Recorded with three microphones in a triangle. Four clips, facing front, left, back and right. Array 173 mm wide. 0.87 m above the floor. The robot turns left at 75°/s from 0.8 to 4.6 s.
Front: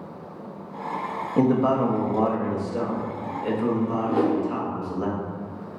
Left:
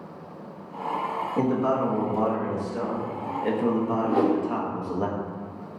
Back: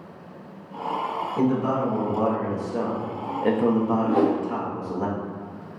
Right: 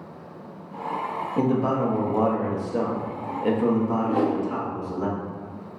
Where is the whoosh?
150° left, 1.2 m; by 4.4 s 125° left, 1.2 m.